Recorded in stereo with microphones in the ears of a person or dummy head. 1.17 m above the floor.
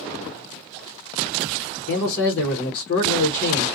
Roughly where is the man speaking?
Left.